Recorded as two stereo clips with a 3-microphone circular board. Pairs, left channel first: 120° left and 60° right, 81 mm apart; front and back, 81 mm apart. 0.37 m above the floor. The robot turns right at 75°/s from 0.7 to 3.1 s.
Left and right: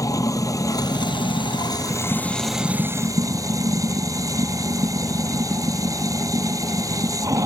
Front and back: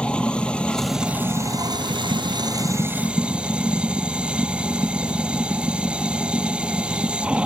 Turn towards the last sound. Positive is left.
turn(degrees=-105)